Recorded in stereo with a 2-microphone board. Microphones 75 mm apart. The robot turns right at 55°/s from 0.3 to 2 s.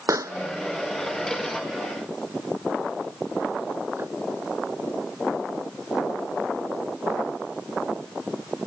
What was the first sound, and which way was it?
A pop, 45° right (ahead or behind).